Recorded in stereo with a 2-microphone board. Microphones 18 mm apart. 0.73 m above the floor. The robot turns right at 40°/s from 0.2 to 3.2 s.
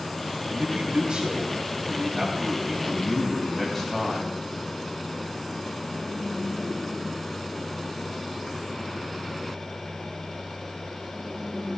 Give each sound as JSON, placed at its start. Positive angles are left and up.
{"t": 0.5, "sound": "a man speaking", "azimuth_deg": -105, "distance_m": 3.5}